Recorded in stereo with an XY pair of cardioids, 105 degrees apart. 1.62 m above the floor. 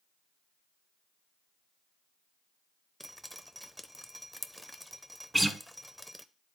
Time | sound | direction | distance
3.0 | dripping | 5° right | 0.6 m
5.3 | a guitar | 10° right | 1.1 m